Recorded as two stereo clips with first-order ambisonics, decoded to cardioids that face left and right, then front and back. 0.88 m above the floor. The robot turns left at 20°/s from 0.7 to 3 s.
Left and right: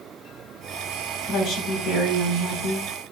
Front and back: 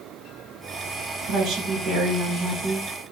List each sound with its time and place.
1.3 s a woman speaking: 140° left, 3.5 m; by 2.9 s 110° left, 3.5 m